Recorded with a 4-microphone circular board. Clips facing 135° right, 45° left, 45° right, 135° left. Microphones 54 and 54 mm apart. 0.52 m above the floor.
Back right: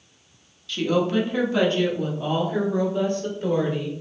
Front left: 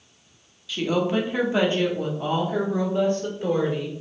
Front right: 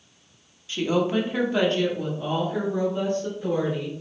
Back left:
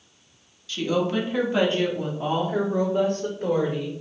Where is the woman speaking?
30° right, 0.8 m; by 3.9 s 110° left, 1.6 m.